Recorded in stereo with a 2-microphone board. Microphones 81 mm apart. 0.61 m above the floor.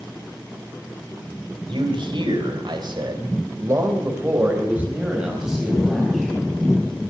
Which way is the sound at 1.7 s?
75° right (ahead or behind).